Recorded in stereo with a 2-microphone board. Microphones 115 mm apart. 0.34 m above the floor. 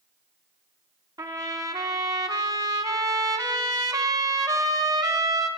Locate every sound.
1.2 s a trumpet: 35° right (ahead or behind), 0.8 m